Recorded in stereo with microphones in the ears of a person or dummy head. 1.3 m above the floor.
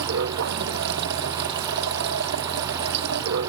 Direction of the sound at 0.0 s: 65° right (ahead or behind).